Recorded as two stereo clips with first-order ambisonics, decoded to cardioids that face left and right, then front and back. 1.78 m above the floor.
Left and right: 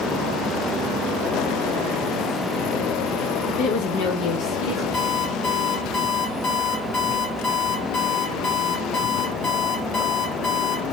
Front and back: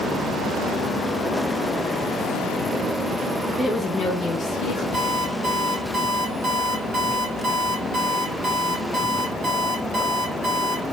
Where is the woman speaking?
95° left, 0.5 m; by 4.8 s 50° left, 1.0 m.